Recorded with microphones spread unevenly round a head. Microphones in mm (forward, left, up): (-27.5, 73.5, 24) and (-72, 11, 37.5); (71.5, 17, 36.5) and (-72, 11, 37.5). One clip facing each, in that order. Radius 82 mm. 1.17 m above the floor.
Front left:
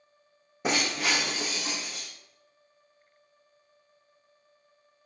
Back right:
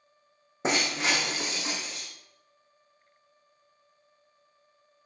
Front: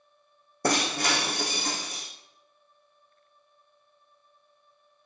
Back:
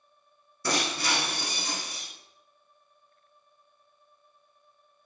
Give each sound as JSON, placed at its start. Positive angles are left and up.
{"t": 0.6, "sound": "breaking glass", "azimuth_deg": -50, "distance_m": 4.0}